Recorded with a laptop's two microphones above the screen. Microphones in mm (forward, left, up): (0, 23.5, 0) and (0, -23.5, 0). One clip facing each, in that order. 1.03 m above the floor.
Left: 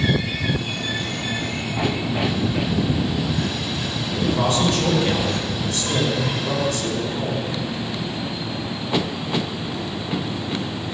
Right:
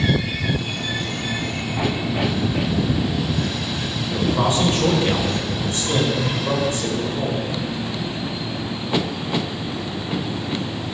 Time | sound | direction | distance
4.1 | a man speaking | 25° right (ahead or behind) | 5 m